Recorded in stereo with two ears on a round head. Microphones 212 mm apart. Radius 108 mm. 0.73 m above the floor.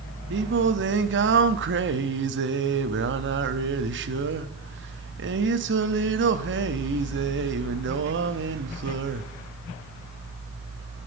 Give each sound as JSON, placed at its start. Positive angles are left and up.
{"t": 0.3, "sound": "singing", "side_deg": -50, "distance_m": 0.6}